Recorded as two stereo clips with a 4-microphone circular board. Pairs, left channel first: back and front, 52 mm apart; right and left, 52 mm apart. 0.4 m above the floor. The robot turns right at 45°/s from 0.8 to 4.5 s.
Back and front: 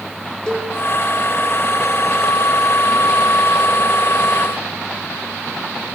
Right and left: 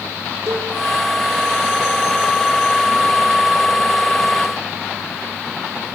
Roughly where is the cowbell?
Left.